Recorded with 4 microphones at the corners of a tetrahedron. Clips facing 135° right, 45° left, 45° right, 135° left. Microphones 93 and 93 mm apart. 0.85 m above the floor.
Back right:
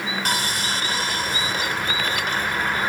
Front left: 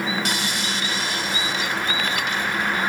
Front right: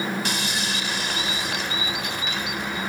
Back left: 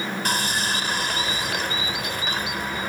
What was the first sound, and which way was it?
Sawing, straight behind.